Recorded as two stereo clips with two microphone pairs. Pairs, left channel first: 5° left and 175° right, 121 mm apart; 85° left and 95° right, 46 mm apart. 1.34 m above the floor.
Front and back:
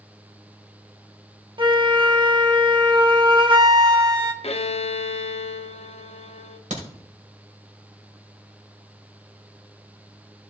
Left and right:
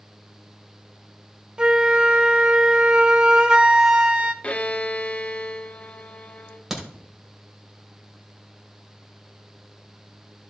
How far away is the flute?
About 1.0 m.